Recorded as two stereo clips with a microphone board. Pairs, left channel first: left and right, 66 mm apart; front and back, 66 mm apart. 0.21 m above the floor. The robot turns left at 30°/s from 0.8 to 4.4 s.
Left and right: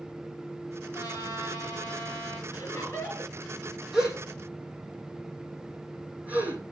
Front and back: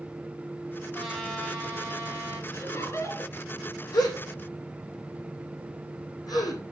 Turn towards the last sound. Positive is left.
turn(degrees=-20)